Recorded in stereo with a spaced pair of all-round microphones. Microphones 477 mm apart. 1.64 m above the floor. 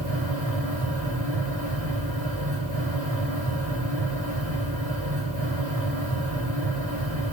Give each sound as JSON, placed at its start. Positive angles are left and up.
{"t": 0.0, "sound": "a fan", "side_deg": -50, "distance_m": 5.0}